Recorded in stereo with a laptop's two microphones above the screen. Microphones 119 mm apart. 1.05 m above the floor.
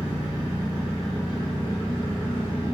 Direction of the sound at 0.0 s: 30° right (ahead or behind).